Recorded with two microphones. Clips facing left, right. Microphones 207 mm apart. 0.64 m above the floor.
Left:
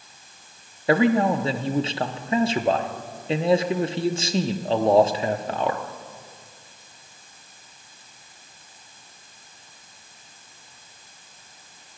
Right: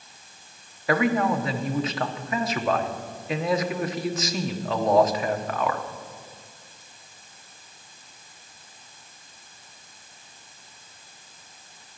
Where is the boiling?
No boiling in this recording.